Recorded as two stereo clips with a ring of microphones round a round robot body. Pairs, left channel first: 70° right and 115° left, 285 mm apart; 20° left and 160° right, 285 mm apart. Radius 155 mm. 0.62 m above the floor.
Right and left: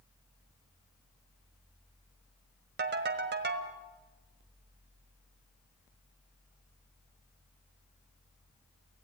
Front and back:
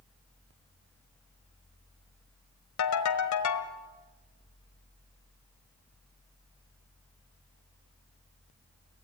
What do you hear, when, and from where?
2.8 s a ringtone: 55° left, 1.5 m